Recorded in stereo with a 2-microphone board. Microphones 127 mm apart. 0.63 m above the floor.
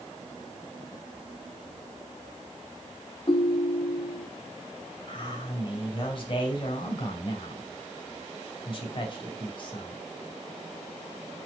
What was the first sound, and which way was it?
A ringtone, 45° left (ahead or behind).